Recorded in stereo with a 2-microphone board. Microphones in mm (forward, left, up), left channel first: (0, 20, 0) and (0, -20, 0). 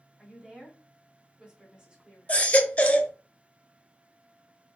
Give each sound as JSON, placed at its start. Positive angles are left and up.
{"t": 0.2, "sound": "a woman speaking", "side_deg": -20, "distance_m": 1.9}
{"t": 2.3, "sound": "a baby crying", "side_deg": 35, "distance_m": 0.6}